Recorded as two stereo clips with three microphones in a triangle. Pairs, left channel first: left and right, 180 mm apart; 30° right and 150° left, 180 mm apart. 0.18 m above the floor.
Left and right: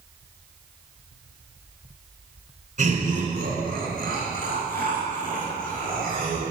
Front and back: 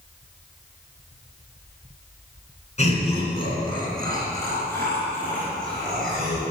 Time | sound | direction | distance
2.8 | laughter | 65° right | 2.5 m